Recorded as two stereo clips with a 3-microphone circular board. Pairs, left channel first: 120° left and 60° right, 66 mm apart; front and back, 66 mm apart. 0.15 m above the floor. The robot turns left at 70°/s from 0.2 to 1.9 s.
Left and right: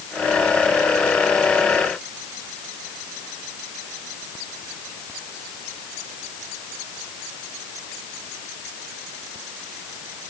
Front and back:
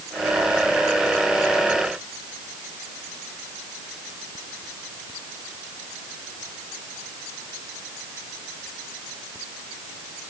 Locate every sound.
Only background noise.